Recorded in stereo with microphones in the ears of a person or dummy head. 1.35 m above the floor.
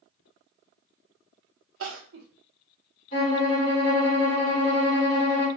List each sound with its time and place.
1.8 s crying: 70° right (ahead or behind), 0.9 m
3.1 s a violin: 35° left (ahead or behind), 2.5 m